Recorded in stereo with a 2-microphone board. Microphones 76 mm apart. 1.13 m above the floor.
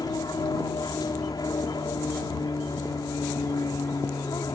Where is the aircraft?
60° left (ahead or behind).